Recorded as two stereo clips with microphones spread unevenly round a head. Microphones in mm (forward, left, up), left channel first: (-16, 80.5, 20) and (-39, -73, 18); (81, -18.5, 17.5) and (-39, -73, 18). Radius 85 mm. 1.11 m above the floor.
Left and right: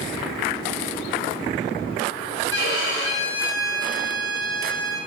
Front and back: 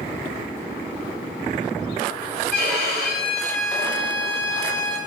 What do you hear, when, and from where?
2.5 s a violin: 70° left, 1.2 m